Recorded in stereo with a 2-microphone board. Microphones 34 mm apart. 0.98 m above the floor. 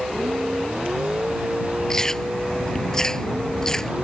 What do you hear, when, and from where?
0.0 s a vehicle: 40° right (ahead or behind)
1.9 s chewing: 15° left (ahead or behind)